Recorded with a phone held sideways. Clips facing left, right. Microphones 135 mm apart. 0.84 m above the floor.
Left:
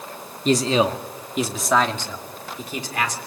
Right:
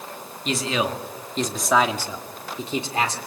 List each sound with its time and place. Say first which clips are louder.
0.5 s a man speaking: left 6 dB; 40° left (ahead or behind), 1.8 m; by 3.2 s 30° right (ahead or behind), 3 m